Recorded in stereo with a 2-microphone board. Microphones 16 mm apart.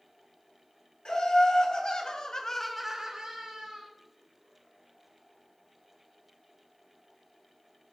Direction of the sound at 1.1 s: 70° left (ahead or behind).